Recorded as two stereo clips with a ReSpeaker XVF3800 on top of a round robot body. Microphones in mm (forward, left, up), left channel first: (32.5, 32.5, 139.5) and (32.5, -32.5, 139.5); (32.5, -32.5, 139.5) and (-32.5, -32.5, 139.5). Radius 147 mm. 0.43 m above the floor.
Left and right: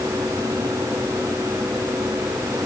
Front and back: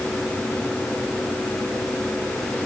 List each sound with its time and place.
Only background noise.